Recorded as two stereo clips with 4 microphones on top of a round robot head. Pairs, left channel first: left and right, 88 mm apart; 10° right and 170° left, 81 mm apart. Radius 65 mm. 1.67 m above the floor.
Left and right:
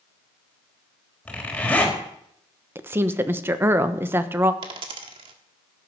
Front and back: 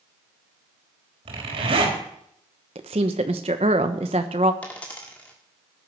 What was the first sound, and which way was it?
A zipper, 165° left.